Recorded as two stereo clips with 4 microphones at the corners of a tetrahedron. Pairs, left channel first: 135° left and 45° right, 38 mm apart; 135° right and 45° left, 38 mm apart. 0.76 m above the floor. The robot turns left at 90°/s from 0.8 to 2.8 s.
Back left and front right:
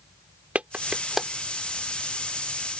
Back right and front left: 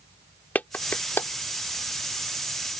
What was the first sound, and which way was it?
A clap, 95° right.